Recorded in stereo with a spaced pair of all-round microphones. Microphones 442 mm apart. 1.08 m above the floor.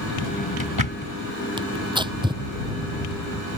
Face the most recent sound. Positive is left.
turn(degrees=-10)  # may be behind; listen again after turning